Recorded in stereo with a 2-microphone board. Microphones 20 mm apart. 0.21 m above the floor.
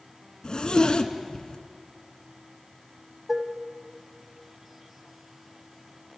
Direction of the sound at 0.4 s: 45° left (ahead or behind).